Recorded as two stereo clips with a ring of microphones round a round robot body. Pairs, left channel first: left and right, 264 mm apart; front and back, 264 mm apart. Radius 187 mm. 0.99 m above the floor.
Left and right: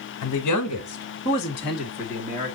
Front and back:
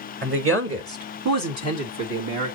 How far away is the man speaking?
About 1.8 m.